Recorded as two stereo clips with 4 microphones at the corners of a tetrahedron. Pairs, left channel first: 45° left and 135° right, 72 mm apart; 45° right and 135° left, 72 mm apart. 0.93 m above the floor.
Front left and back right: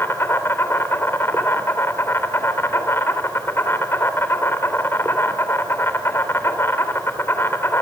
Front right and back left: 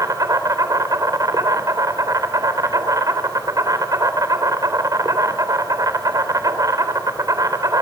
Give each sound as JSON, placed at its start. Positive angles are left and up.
{"t": 0.0, "sound": "an insect", "azimuth_deg": 100, "distance_m": 3.5}